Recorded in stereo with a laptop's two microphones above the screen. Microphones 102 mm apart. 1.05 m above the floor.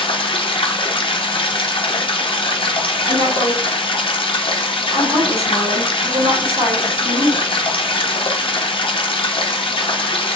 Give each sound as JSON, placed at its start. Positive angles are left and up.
{"t": 0.0, "sound": "running water", "side_deg": 55, "distance_m": 0.7}
{"t": 3.1, "sound": "a woman speaking", "side_deg": -80, "distance_m": 2.5}